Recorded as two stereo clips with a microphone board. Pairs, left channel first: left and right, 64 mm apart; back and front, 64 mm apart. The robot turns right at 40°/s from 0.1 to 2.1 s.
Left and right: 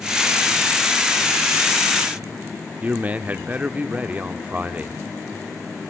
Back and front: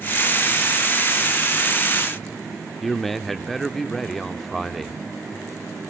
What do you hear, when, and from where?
2.8 s a man speaking: 95° right, 0.7 m